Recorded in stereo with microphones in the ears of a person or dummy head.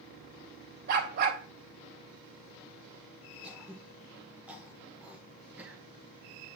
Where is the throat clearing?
Centre (ahead or behind), 2 m.